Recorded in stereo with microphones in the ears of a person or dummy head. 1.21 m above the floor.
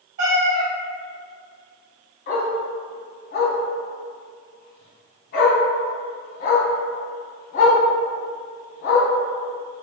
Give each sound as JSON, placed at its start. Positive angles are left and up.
{"t": 0.2, "sound": "a cat meowing", "side_deg": -45, "distance_m": 0.8}
{"t": 2.3, "sound": "a dog barking", "side_deg": 50, "distance_m": 1.0}